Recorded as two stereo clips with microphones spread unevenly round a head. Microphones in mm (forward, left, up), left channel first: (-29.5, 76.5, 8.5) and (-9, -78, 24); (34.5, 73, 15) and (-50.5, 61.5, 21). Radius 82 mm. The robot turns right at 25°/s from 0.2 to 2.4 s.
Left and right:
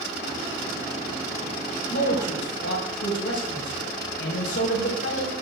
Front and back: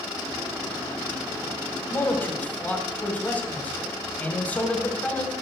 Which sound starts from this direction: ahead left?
A man speaking, at 1.9 s.